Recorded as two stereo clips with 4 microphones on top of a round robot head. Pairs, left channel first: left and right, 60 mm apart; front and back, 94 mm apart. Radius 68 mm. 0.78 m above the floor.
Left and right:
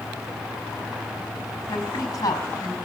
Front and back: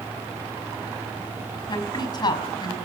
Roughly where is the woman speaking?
Ahead left.